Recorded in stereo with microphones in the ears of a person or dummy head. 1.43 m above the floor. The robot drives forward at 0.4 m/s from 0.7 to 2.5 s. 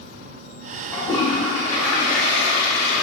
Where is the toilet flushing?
15° left (ahead or behind), 1.9 m; by 3.0 s 10° left (ahead or behind), 2.5 m.